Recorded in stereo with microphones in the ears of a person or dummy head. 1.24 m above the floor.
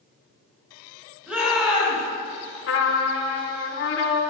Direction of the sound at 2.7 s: 65° left (ahead or behind).